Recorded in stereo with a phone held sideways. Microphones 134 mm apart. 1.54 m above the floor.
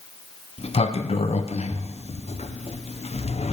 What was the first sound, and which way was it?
A sliding door, 55° left (ahead or behind).